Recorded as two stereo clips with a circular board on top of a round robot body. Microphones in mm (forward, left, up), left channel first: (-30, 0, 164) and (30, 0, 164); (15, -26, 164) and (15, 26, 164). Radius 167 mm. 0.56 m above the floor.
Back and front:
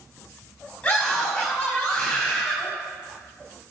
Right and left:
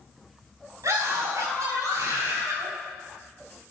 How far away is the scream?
About 5.5 m.